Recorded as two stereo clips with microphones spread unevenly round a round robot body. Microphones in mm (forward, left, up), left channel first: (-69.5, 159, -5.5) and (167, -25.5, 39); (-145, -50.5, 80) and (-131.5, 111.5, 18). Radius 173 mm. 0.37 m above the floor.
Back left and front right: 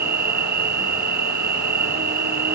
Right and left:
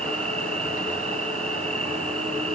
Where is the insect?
20° left.